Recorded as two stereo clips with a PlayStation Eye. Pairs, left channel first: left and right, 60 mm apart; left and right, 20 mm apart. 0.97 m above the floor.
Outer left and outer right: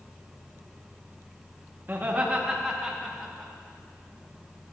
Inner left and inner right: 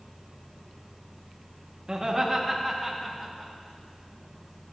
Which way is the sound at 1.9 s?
40° right (ahead or behind).